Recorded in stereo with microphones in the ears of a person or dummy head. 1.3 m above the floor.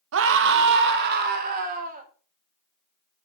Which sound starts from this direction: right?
A scream, at 0.1 s.